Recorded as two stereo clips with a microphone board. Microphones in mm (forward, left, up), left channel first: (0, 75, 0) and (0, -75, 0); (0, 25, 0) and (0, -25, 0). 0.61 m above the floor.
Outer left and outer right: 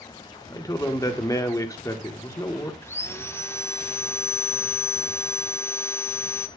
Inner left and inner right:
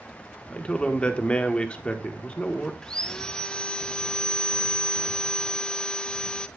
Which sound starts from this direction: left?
A man speaking, at 0.5 s.